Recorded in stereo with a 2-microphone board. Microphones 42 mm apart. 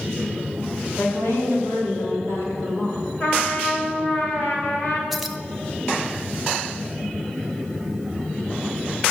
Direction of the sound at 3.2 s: 35° left (ahead or behind).